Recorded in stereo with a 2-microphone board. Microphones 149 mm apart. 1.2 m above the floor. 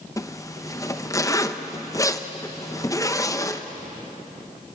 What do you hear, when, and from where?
0.2 s a zipper: 20° left (ahead or behind), 0.8 m